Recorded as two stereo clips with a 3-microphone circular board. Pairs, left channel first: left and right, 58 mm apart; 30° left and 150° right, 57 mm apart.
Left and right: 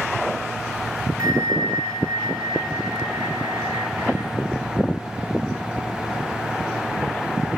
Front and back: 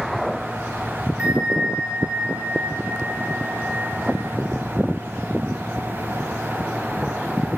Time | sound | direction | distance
1.2 | a bell | 80° right | 4.5 m